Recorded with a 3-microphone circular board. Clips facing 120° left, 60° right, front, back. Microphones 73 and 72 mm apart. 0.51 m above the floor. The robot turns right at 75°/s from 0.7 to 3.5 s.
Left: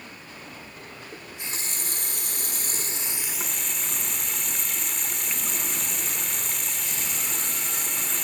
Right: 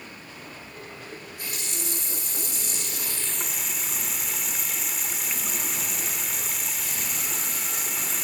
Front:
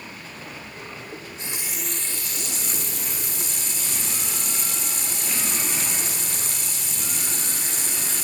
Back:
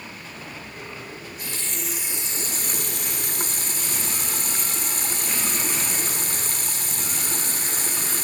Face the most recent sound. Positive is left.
turn(degrees=-145)